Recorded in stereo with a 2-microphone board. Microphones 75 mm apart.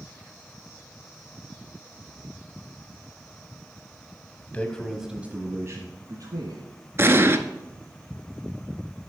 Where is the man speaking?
20° left (ahead or behind), 1.1 m; by 6.6 s 60° right (ahead or behind), 1.9 m.